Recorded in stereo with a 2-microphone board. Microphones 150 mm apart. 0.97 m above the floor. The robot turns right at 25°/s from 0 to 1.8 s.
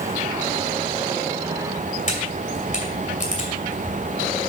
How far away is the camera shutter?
About 2.5 m.